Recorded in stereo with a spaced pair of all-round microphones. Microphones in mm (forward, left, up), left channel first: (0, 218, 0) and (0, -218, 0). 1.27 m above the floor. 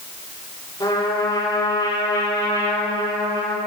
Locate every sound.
0.8 s a trumpet: 10° left (ahead or behind), 2.5 m